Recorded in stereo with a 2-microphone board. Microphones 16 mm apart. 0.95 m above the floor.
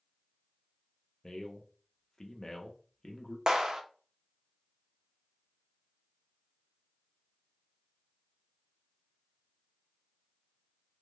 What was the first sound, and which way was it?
A man speaking, 40° left (ahead or behind).